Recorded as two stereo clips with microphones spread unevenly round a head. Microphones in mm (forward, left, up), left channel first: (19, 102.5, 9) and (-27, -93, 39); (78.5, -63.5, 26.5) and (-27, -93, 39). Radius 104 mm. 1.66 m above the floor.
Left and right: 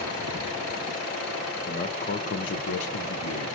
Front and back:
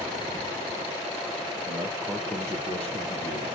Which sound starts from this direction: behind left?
A man speaking, at 1.7 s.